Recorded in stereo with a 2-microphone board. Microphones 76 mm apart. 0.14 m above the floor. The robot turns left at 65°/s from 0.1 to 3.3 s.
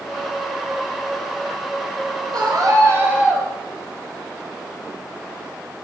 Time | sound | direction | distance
2.3 | a scream | 105° right | 2.5 m